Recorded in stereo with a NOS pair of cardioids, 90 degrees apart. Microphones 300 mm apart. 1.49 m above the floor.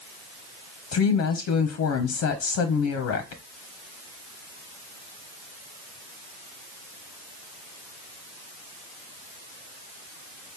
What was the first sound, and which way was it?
A woman speaking, 60° left.